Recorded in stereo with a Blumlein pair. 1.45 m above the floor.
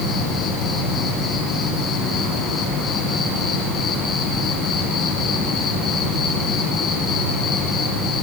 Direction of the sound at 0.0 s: 25° left.